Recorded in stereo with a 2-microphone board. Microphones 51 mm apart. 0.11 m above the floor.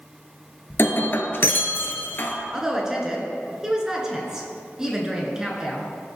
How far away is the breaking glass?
About 0.8 m.